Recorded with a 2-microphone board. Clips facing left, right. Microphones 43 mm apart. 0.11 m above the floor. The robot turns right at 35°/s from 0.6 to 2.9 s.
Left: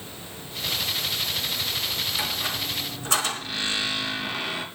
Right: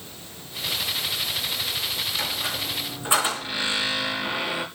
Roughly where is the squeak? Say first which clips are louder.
Even; centre.